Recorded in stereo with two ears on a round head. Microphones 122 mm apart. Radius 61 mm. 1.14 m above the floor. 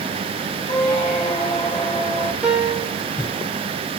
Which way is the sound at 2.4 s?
10° right (ahead or behind).